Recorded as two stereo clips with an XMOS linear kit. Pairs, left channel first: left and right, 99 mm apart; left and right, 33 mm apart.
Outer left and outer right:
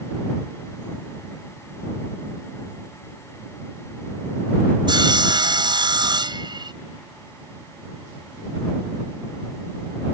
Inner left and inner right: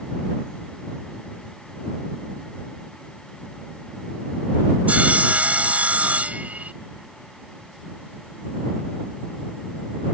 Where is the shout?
I don't hear a shout.